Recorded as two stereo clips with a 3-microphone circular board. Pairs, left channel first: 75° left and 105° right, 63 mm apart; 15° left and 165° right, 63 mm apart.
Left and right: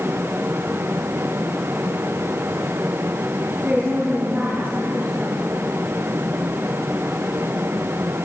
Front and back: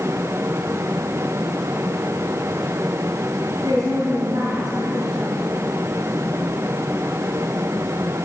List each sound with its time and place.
3.6 s a woman speaking: 160° right, 4.5 m